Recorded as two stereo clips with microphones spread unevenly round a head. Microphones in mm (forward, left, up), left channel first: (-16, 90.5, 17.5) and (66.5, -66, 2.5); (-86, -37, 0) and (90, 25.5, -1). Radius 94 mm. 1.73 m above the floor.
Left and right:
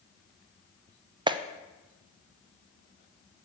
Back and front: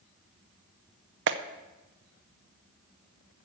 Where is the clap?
5° left, 0.5 m.